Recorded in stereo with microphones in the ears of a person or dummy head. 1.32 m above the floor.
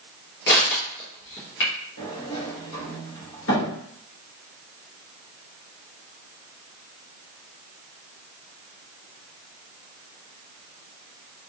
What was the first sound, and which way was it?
Crushing, 60° left (ahead or behind).